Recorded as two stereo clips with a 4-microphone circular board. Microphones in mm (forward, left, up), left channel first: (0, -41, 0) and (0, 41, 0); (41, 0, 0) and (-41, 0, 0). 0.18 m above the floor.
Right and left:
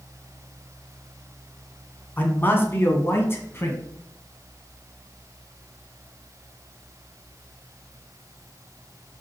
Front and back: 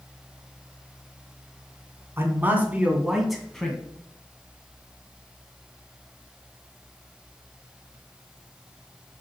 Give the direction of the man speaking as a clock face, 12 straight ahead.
5 o'clock.